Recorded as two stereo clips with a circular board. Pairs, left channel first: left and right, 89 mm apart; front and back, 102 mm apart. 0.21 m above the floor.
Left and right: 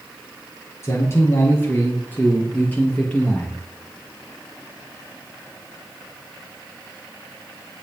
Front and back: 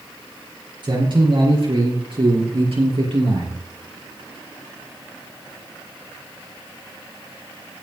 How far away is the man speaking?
About 3.5 m.